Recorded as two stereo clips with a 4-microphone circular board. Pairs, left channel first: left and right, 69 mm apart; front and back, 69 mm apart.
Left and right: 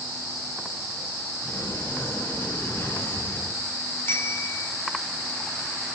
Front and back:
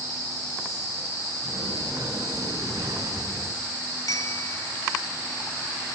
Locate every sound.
1.4 s a sliding door: 150° left, 5.5 m
4.0 s a bicycle bell: 35° left, 4 m